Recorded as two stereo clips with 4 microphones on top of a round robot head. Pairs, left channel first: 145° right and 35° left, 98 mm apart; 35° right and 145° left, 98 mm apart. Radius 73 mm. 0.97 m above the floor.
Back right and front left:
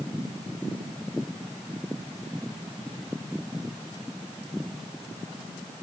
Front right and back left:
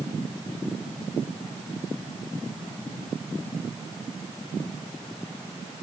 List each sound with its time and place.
Only background noise.